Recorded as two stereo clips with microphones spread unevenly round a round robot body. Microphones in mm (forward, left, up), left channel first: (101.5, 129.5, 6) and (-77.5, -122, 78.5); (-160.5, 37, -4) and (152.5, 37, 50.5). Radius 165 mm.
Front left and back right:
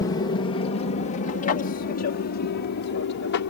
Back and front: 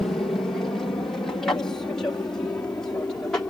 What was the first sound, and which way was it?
An aircraft, 105° left.